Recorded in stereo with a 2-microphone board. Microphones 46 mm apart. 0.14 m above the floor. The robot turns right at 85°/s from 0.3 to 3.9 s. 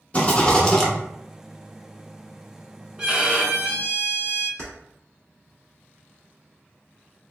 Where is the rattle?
125° left, 1.1 m; by 0.9 s 175° left, 1.1 m.